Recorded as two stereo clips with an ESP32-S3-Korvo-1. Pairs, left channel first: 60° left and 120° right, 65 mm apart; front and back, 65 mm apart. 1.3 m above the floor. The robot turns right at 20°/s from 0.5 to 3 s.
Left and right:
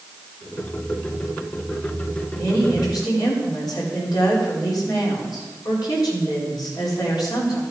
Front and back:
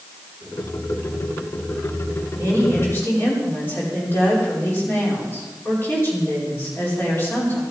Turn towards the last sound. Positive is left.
turn(degrees=55)